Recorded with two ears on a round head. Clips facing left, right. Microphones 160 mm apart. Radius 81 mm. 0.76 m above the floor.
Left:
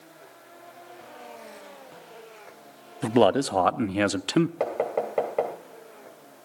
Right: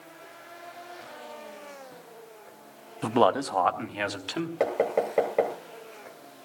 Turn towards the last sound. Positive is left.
turn(degrees=-5)  # may be behind; listen again after turning